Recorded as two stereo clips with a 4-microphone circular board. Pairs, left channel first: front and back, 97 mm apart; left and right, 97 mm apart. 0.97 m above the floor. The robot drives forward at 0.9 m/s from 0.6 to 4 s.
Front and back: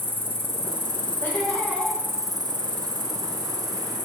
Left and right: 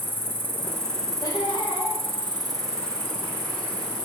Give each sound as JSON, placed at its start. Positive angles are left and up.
{"t": 0.0, "sound": "an insect", "azimuth_deg": -20, "distance_m": 1.2}
{"t": 1.2, "sound": "laughter", "azimuth_deg": 60, "distance_m": 1.4}